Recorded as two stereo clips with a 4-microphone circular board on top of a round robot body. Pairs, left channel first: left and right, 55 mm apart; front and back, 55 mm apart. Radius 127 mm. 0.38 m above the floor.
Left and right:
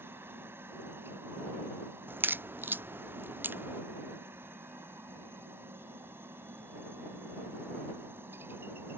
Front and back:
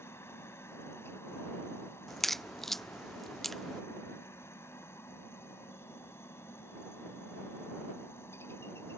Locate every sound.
0.0 s a helicopter: 40° right
2.1 s a crack: 85° right